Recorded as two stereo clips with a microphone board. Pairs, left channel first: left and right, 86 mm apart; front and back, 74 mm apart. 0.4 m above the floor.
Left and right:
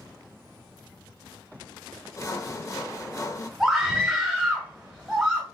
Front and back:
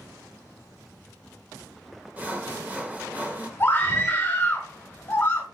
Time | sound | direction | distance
2.2 | sawing | 120° left | 0.6 m
3.6 | a scream | 5° right | 1.3 m